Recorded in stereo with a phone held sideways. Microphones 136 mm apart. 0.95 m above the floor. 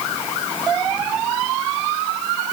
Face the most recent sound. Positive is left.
No sound to turn to.